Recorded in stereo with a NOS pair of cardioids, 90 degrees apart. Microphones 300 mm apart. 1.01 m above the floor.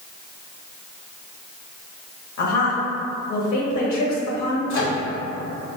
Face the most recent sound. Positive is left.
turn(degrees=70)